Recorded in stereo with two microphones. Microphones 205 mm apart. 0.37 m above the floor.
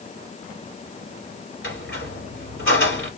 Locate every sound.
1.6 s a squeak: 80° left, 2.5 m